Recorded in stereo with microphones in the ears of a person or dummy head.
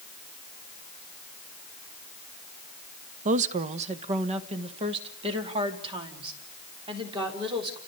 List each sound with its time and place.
3.2 s a woman speaking: 40° right (ahead or behind), 1.0 m; by 7.8 s 25° right (ahead or behind), 4.5 m